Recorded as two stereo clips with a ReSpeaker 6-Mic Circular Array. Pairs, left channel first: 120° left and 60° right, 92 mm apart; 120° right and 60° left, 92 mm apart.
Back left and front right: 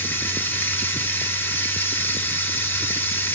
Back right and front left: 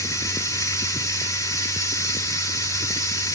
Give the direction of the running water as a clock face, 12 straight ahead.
6 o'clock.